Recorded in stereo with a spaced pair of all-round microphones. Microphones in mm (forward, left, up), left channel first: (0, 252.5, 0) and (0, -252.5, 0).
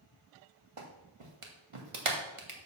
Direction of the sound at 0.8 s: 80° right.